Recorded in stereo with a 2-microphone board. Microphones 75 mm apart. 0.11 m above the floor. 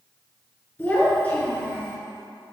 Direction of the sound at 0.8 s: 20° left (ahead or behind).